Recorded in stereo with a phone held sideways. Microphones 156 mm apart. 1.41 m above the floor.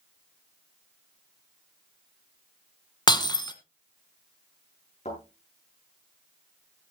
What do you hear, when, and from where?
3.1 s breaking glass: 30° left (ahead or behind), 1.4 m
5.0 s a thud: 45° left (ahead or behind), 9.5 m